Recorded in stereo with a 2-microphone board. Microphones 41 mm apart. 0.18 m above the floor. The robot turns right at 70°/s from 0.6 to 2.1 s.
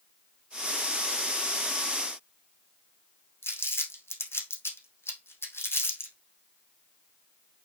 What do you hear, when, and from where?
3.4 s crumpling: 80° left, 3 m